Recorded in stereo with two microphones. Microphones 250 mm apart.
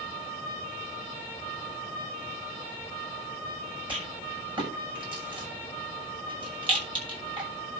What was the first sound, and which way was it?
A rattle, 20° right (ahead or behind).